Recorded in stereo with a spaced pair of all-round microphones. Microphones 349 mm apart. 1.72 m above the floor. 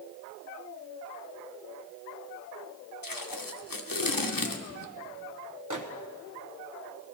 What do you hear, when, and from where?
3.0 s tape being pulled: 70° left (ahead or behind), 0.8 m
5.7 s a microwave: 60° right (ahead or behind), 1.0 m